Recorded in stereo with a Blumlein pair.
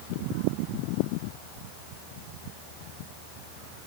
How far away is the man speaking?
No man speaking in this recording.